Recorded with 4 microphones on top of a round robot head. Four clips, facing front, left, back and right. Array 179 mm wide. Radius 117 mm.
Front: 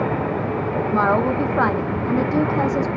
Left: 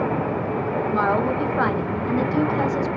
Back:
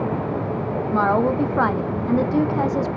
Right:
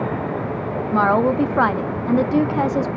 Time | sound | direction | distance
0.9 | a woman speaking | 100° right | 0.8 m